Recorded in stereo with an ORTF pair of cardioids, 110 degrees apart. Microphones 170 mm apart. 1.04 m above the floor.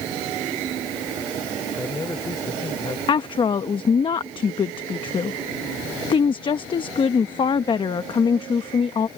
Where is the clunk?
No clunk in this recording.